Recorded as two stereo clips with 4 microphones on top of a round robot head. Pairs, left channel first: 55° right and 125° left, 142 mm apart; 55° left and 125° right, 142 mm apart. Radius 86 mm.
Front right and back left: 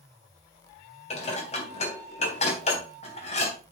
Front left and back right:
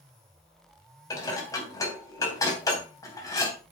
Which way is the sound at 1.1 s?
15° right.